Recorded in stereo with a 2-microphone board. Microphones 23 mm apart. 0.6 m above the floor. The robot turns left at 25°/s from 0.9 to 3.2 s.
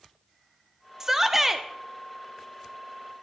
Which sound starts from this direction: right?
A shout, at 1.0 s.